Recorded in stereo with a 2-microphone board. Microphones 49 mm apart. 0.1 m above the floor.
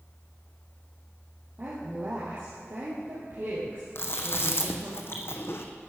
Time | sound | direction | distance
1.6 | a woman speaking | 50° right (ahead or behind) | 3 m
4.0 | chewing | 60° left (ahead or behind) | 1.4 m